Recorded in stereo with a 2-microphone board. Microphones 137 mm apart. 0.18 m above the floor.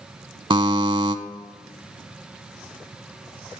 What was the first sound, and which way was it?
A buzzer, 35° right (ahead or behind).